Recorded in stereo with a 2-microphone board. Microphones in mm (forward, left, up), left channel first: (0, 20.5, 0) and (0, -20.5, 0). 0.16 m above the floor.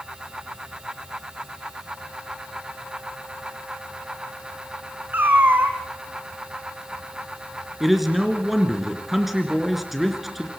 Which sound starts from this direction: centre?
A man speaking, at 7.8 s.